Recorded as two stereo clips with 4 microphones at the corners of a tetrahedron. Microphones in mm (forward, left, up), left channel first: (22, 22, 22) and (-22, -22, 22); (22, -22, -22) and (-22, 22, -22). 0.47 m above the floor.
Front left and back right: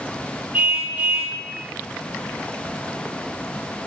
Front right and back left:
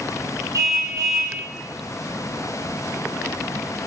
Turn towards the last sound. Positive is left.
turn(degrees=160)